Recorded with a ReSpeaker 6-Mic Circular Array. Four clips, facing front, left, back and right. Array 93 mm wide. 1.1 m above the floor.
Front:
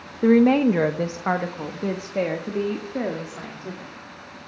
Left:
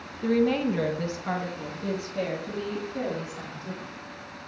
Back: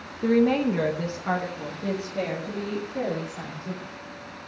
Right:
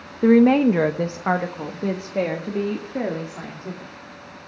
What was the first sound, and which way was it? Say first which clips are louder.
A woman speaking: right 9 dB, front 5 dB; 60° right.